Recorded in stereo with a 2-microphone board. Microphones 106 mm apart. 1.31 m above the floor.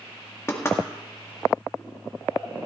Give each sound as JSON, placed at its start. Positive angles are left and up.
{"t": 0.5, "sound": "knocking", "side_deg": 25, "distance_m": 2.0}